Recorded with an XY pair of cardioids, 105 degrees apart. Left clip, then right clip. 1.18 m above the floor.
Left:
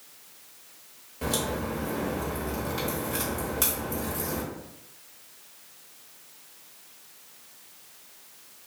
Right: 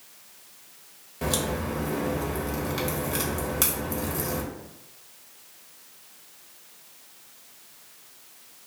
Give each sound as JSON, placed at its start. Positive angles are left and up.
{"t": 1.2, "sound": "a crack", "azimuth_deg": -30, "distance_m": 1.0}